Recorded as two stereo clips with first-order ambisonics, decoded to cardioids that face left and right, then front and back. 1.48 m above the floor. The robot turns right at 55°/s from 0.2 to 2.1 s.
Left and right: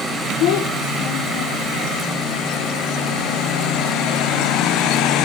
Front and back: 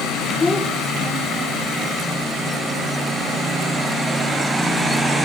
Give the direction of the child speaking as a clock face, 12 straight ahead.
10 o'clock.